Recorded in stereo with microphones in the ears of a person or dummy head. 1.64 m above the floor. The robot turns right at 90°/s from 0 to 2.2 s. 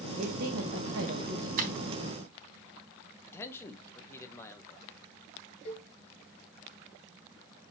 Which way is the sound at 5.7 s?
35° left (ahead or behind).